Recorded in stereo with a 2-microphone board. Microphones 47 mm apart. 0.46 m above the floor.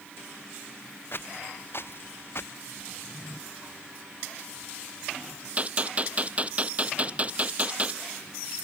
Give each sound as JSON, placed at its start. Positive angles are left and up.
{"t": 1.1, "sound": "footsteps", "side_deg": 50}
{"t": 2.9, "sound": "a drawer", "side_deg": -30}
{"t": 5.6, "sound": "a gunshot", "side_deg": -30}